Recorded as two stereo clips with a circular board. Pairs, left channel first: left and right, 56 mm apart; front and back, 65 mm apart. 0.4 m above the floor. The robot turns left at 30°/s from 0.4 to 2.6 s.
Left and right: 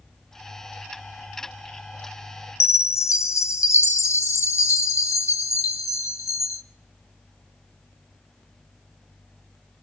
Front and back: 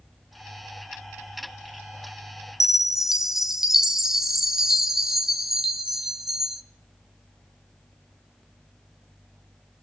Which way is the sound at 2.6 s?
95° left.